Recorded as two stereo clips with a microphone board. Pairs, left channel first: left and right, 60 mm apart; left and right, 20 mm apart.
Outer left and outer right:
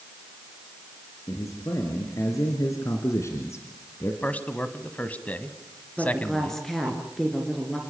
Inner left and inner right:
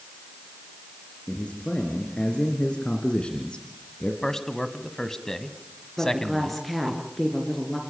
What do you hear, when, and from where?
1.3 s a man speaking: 65° left (ahead or behind), 3.5 m; by 4.1 s 45° left (ahead or behind), 1.7 m
4.2 s a man speaking: 25° left (ahead or behind), 1.4 m
6.0 s a woman speaking: 5° left (ahead or behind), 3 m